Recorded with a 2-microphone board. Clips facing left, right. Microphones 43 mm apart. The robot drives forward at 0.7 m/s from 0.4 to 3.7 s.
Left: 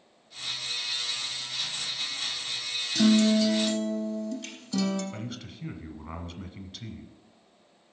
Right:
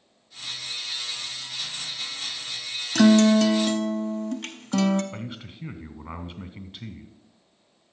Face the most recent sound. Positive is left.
turn(degrees=-20)  # may be behind; listen again after turning